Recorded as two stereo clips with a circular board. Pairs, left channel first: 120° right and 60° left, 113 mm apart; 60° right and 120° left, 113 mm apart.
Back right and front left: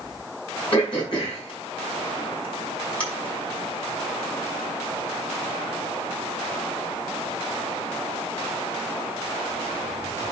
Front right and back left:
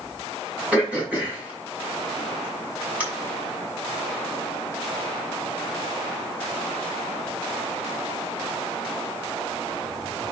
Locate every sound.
0.7 s throat clearing: 160° right, 6.5 m